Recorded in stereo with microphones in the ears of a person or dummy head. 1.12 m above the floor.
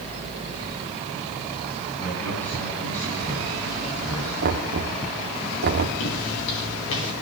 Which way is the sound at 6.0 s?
70° left (ahead or behind).